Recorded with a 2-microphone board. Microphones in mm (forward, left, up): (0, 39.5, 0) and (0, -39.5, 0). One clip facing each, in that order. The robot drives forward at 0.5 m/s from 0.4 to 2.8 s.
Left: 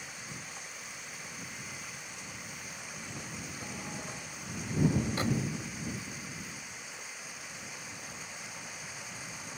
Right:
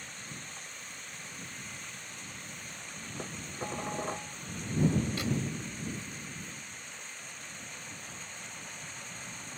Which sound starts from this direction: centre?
Running water, at 0.0 s.